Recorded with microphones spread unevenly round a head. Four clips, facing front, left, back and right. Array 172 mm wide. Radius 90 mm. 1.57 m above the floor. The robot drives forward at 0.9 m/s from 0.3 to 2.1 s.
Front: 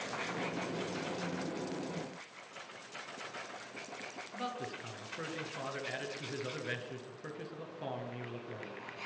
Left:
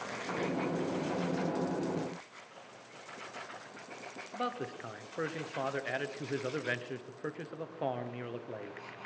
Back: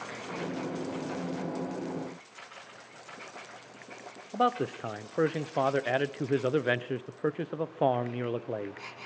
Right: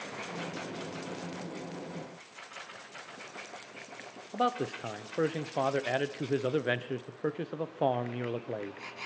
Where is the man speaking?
155° right, 0.8 m.